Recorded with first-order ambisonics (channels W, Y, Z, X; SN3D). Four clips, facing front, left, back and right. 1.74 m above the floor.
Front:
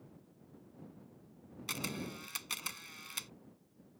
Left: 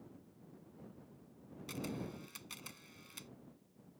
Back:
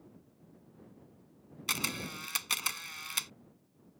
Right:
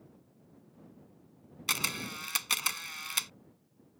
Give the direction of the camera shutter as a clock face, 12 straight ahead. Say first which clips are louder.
Right 11 dB, back 6 dB; 4 o'clock.